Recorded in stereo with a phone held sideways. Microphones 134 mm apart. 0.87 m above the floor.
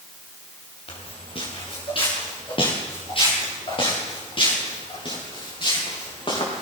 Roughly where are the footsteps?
Left.